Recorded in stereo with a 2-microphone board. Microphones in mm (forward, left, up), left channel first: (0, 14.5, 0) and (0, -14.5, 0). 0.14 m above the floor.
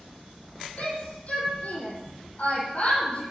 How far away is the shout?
About 6.5 m.